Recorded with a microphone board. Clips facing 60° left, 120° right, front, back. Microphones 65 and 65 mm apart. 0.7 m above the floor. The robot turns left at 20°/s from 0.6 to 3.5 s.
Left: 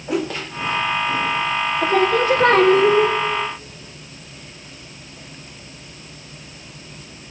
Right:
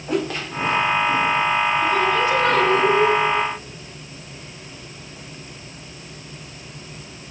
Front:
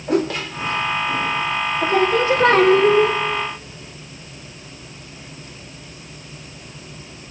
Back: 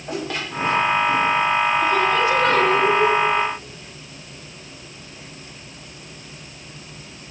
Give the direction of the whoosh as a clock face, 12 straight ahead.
1 o'clock.